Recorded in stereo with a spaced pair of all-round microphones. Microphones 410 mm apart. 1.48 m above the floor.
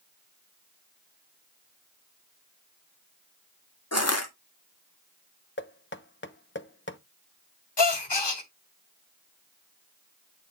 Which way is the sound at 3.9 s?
35° left (ahead or behind).